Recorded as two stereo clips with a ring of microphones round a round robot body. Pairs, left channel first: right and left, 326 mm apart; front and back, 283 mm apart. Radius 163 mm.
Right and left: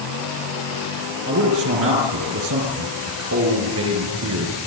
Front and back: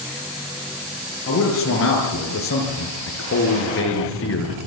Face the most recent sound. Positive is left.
turn(degrees=40)